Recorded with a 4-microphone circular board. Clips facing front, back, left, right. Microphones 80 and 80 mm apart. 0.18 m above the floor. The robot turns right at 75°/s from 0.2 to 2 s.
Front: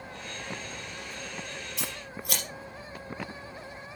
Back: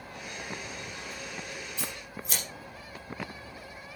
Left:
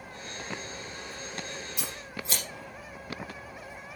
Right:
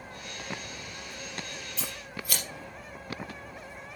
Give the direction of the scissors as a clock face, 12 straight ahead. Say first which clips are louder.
Front 1 dB, even; 12 o'clock.